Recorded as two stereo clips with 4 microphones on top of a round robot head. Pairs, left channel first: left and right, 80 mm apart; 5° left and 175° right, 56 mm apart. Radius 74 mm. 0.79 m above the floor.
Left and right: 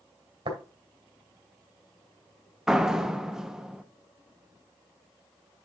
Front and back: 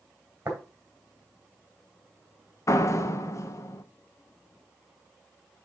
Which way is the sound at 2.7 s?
5° right.